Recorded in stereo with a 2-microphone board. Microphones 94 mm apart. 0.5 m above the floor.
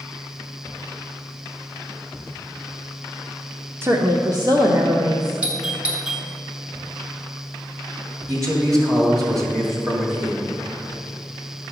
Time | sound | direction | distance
3.8 | a woman speaking | 30° right (ahead or behind) | 0.8 m
5.4 | a doorbell | 15° right (ahead or behind) | 1.5 m
8.3 | a man speaking | 40° right (ahead or behind) | 2.5 m